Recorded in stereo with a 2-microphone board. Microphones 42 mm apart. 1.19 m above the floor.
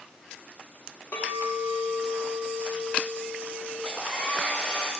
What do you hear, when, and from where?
1.1 s a clink: 75° left (ahead or behind), 1.3 m
3.9 s a hair dryer: 30° left (ahead or behind), 2 m